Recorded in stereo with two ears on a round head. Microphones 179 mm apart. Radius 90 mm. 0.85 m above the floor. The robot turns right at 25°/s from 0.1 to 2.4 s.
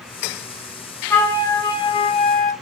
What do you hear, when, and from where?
1.1 s a flute: 10° left, 0.6 m; by 2.5 s 45° left, 0.6 m